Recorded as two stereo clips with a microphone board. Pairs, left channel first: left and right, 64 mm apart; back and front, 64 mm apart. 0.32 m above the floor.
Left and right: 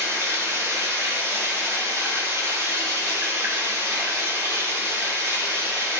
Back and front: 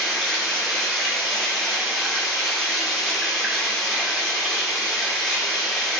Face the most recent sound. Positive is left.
turn(degrees=-80)